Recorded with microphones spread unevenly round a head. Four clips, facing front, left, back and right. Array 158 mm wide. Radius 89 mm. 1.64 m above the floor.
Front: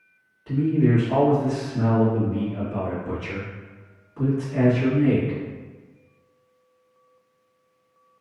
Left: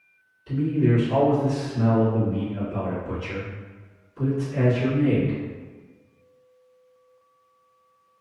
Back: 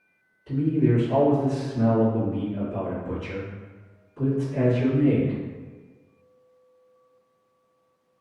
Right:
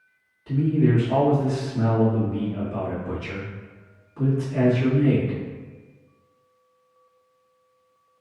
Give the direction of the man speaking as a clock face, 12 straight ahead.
1 o'clock.